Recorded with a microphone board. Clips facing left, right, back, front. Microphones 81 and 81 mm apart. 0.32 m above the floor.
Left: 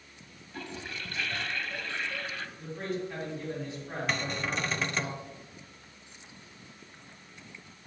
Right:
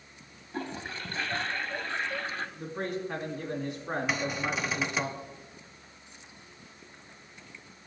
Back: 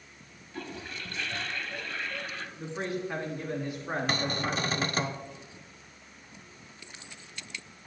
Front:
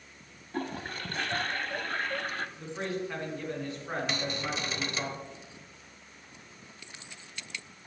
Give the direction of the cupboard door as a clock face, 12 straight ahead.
6 o'clock.